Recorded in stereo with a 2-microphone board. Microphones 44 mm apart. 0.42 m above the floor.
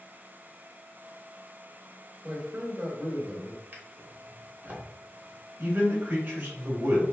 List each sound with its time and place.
2.2 s a man speaking: 30° right (ahead or behind), 1.7 m
3.7 s a drawer: 40° right (ahead or behind), 1.1 m
5.6 s a man speaking: 35° right (ahead or behind), 1.7 m